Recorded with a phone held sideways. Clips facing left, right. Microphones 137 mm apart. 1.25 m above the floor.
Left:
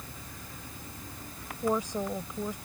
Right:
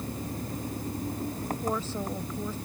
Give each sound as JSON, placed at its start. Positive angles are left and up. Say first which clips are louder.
{"t": 0.0, "sound": "an engine running", "louder": "right 12 dB", "side_deg": -40}
{"t": 1.6, "sound": "a woman speaking", "louder": "left 5 dB", "side_deg": 15}